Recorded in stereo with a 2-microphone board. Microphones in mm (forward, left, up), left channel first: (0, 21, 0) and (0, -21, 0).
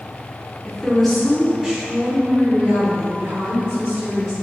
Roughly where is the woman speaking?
Centre.